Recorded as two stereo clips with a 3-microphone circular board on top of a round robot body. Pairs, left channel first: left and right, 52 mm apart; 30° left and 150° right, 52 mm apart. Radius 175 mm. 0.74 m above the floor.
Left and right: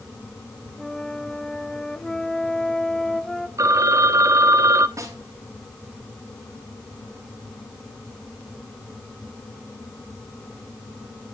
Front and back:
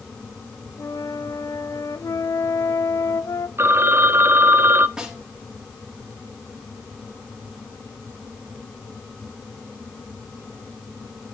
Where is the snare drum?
75° right, 5 m.